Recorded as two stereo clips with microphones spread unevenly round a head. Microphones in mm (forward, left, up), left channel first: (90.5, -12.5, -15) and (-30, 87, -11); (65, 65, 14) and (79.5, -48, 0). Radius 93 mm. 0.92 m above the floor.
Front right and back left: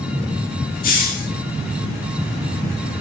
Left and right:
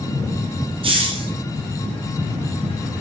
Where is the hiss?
50° right, 0.7 m.